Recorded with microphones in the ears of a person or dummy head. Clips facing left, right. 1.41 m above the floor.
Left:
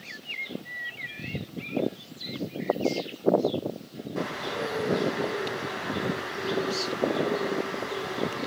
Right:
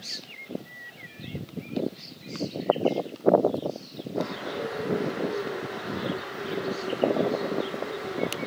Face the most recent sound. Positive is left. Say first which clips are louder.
# right 1 dB
turn(degrees=75)  # may be behind; listen again after turning